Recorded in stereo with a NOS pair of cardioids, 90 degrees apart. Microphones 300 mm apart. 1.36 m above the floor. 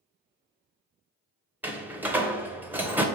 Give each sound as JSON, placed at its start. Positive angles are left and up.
{"t": 1.6, "sound": "a door slam", "azimuth_deg": -5, "distance_m": 0.6}